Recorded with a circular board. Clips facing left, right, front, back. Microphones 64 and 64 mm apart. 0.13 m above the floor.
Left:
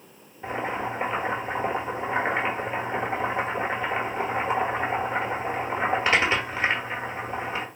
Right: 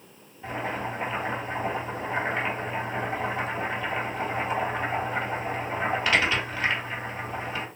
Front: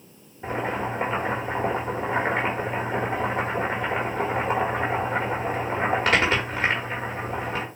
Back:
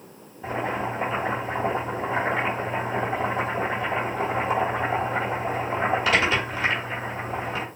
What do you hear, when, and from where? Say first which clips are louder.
0.4 s boiling: left 2 dB, even; 30° left, 1.6 m